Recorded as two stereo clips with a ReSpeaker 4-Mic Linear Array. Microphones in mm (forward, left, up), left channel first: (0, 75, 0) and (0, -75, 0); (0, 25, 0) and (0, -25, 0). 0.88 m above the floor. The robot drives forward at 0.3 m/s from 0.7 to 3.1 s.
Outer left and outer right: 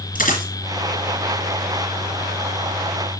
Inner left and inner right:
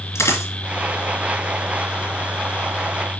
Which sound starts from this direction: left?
A dropped coin, at 0.1 s.